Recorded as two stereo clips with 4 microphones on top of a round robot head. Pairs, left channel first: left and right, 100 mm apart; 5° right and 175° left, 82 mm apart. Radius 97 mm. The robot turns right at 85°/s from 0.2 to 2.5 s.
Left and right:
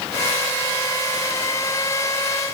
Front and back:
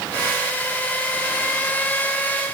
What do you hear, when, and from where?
Only background noise.